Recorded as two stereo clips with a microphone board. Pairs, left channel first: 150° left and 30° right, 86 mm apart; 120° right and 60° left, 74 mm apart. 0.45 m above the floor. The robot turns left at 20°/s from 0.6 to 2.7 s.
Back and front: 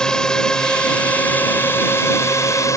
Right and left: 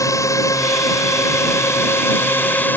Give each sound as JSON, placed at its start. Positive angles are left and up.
{"t": 0.0, "sound": "a drone", "azimuth_deg": -130}